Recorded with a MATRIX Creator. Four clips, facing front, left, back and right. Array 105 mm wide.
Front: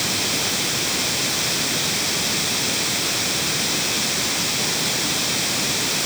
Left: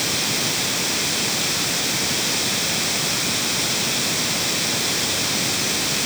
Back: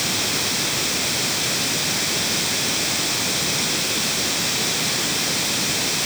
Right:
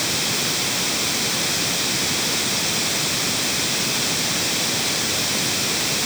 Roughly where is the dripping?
No dripping in this recording.